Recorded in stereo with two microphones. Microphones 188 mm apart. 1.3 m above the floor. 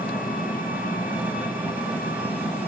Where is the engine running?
10° right (ahead or behind), 3 m.